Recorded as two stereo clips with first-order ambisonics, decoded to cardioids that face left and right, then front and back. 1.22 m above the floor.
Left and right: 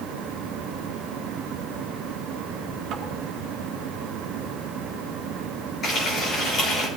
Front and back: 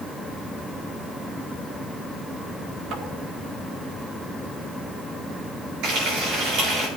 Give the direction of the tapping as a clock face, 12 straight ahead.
5 o'clock.